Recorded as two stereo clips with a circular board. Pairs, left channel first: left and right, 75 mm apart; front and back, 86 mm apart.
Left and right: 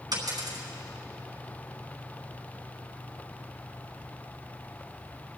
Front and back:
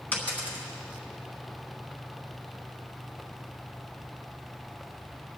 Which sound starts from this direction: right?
A dropped coin, at 0.1 s.